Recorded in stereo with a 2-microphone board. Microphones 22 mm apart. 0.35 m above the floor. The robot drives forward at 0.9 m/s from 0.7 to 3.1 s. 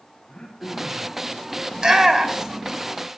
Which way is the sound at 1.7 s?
30° right (ahead or behind).